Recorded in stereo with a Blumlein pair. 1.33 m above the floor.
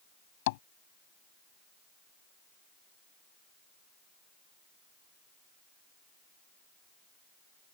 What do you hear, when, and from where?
0.5 s tapping: 50° left